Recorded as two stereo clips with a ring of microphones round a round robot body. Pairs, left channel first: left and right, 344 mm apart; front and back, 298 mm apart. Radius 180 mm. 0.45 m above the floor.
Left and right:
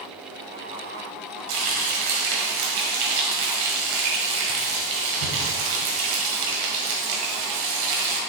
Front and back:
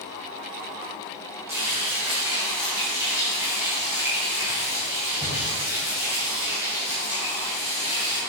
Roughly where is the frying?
Right.